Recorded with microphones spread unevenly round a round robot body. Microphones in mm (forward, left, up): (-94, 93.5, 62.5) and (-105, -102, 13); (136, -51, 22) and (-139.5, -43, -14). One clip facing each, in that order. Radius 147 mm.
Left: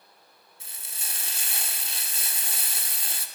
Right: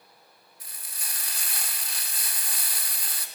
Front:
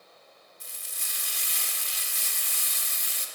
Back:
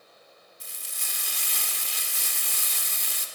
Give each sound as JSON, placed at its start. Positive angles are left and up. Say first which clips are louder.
{"t": 0.6, "sound": "frying", "louder": "left 1 dB, back 2 dB", "azimuth_deg": 155, "distance_m": 2.0}